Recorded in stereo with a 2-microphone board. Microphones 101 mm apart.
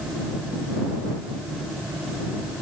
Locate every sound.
Only background noise.